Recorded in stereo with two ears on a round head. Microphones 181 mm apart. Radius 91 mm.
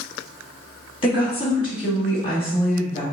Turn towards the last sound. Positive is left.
turn(degrees=25)  # may be behind; listen again after turning